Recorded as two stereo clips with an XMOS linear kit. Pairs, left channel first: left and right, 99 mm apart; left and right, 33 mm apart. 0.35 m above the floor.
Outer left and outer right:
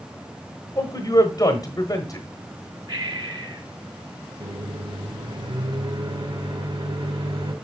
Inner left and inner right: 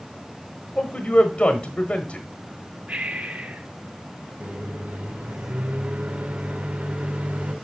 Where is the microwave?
60° right (ahead or behind), 1.9 m.